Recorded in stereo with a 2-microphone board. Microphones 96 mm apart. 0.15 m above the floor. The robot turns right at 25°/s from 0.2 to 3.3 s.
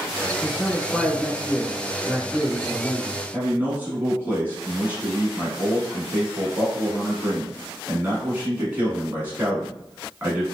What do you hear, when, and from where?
0.4 s a man speaking: 20° left (ahead or behind), 1.2 m; by 3.2 s 15° right (ahead or behind), 1.2 m
3.3 s a man speaking: 20° right (ahead or behind), 1.1 m